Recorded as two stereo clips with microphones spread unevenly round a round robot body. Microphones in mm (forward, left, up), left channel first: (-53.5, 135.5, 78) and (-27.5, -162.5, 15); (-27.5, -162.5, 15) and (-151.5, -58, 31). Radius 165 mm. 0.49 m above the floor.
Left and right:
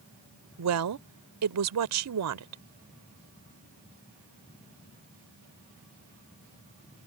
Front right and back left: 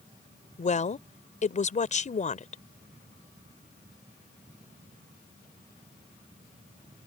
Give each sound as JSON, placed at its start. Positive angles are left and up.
{"t": 0.6, "sound": "a woman speaking", "azimuth_deg": -75}